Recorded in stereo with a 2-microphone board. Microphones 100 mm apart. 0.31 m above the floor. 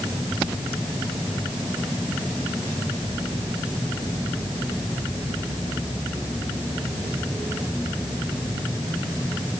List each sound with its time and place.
Only background noise.